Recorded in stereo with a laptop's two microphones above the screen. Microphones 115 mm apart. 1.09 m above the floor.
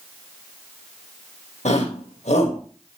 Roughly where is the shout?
Left.